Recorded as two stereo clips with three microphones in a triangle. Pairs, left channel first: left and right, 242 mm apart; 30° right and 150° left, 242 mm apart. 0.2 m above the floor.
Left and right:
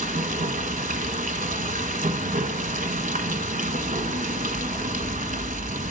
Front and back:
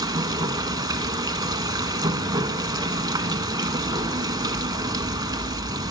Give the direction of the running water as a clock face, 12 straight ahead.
5 o'clock.